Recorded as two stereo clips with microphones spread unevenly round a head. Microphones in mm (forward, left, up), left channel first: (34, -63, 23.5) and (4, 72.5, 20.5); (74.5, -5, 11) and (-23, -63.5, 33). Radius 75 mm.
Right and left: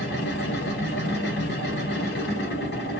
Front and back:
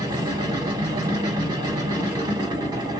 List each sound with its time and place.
0.0 s a machine running: 95° right, 1.1 m